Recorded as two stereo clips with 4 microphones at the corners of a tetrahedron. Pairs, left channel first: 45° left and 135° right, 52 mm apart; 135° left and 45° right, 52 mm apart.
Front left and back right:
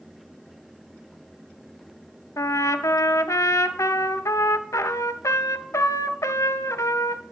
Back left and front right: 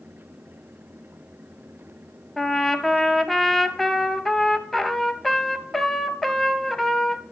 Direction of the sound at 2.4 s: 50° left.